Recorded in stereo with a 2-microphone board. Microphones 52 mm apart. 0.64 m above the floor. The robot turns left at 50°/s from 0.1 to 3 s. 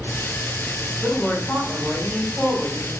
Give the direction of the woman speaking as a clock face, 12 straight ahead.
11 o'clock.